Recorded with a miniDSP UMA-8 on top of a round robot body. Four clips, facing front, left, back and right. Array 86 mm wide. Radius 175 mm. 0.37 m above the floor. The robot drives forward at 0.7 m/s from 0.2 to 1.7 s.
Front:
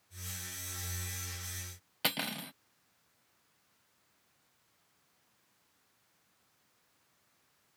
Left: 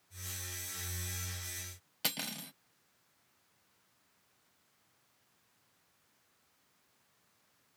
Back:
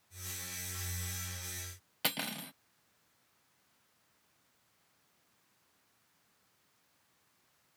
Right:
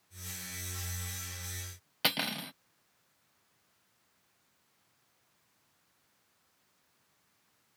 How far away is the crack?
No crack in this recording.